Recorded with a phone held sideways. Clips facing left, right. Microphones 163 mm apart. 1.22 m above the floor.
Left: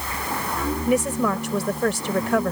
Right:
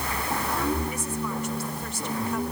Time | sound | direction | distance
0.9 | a woman speaking | 80° left | ?